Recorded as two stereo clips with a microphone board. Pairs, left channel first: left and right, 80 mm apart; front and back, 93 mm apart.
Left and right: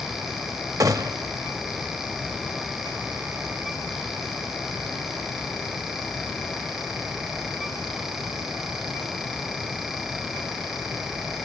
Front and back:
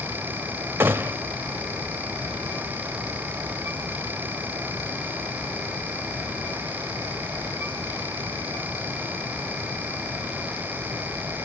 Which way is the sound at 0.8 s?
120° right.